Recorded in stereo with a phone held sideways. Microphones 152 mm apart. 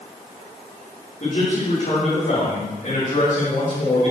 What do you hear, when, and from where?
1.2 s a man speaking: 60° left (ahead or behind), 4.5 m